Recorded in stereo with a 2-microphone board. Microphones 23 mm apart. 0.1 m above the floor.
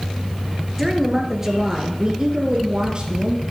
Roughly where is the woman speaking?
Centre.